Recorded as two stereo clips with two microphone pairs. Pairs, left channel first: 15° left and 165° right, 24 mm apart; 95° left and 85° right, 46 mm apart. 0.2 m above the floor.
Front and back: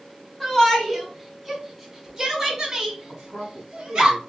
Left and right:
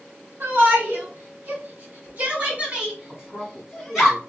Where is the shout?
70° right, 1.7 m; by 4.1 s 170° right, 1.4 m.